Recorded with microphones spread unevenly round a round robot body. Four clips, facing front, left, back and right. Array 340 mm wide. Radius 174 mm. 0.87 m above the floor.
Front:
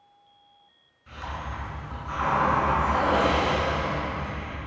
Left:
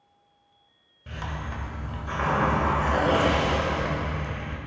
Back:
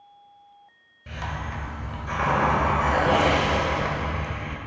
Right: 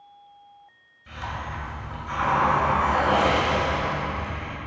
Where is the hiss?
145° left, 2 m.